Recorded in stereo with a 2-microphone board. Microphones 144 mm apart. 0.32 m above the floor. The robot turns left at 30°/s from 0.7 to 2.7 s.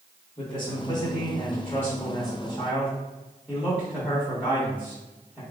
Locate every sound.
0.4 s a man speaking: 60° left, 1.7 m; by 5.4 s straight ahead, 1.7 m